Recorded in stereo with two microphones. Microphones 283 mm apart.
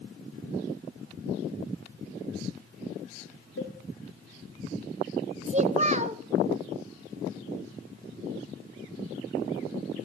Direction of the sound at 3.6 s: 50° left (ahead or behind).